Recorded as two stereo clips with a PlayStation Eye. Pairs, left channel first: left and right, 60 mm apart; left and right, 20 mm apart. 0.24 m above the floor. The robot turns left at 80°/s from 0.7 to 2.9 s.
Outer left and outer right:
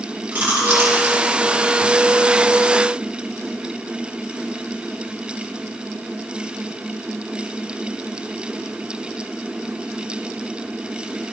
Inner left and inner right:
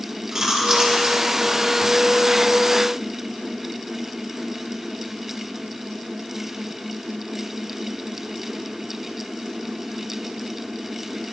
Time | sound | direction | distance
0.3 | chewing | 20° right (ahead or behind) | 4 m